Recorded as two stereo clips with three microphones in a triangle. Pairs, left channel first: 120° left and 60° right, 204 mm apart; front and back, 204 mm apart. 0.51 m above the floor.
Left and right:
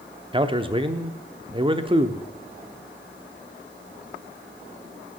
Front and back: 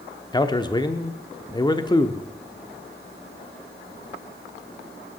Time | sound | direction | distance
0.3 | a man speaking | 40° right | 0.7 m